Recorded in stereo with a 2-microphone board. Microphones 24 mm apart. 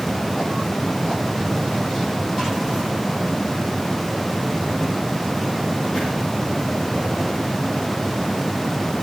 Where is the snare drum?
I don't hear a snare drum.